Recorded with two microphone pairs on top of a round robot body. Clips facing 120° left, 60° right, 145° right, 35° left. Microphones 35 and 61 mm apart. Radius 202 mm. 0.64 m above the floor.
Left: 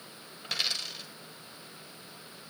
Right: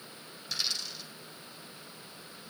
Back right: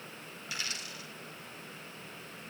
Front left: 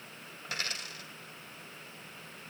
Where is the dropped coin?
80° left, 1.3 m.